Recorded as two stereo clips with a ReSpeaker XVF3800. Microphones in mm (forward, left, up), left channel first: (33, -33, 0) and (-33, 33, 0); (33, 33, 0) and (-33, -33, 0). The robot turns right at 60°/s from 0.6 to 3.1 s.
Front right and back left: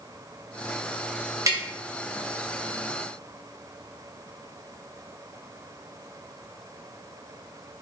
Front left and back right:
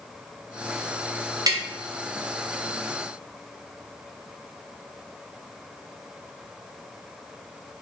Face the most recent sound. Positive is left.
turn(degrees=-75)